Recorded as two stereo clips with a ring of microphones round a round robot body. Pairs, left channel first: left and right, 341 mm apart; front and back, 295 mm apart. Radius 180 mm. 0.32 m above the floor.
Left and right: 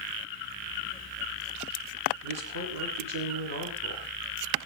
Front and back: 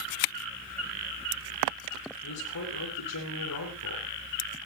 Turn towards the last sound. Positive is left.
turn(degrees=-45)